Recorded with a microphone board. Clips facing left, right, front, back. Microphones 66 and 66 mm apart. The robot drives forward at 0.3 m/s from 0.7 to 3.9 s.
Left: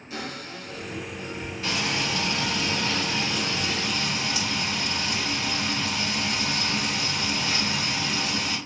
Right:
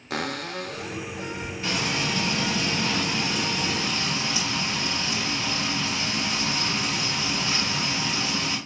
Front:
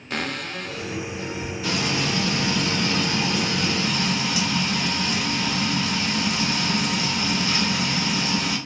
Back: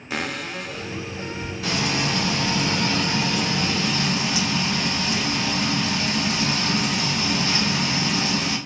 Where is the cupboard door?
95° right, 0.5 m; by 1.5 s 120° right, 0.6 m.